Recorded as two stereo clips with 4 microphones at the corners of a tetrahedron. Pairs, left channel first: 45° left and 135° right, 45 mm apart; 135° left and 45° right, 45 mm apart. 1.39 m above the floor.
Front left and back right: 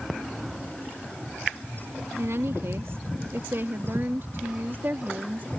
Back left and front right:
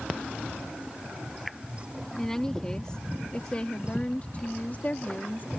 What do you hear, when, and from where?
2.2 s a woman speaking: 145° right; by 5.5 s straight behind